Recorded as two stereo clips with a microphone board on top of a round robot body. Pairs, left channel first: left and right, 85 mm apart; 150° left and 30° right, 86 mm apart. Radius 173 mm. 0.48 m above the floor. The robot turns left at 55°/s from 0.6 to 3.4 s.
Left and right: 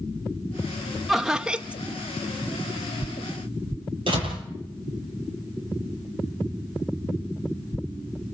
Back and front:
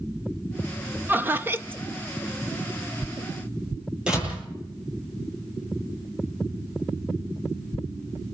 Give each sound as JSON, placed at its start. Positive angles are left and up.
{"t": 1.1, "sound": "laughter", "azimuth_deg": -5, "distance_m": 1.3}
{"t": 4.1, "sound": "a door slam", "azimuth_deg": -110, "distance_m": 9.5}